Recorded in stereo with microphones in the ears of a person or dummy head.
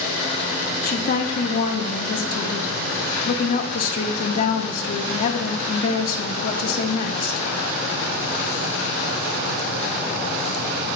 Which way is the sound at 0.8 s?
45° left (ahead or behind).